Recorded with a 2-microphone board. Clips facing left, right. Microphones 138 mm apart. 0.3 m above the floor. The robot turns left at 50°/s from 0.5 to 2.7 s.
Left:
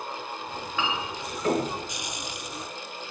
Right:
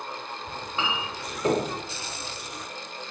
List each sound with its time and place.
0.5 s a clink: 30° right (ahead or behind), 0.7 m; by 1.7 s 25° right (ahead or behind), 0.7 m